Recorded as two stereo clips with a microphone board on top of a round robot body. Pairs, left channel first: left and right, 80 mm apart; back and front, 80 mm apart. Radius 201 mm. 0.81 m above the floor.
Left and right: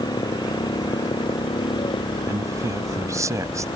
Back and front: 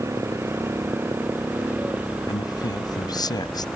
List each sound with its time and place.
0.0 s a motorcycle: 60° left; by 3.8 s 85° left
2.3 s a man speaking: 140° right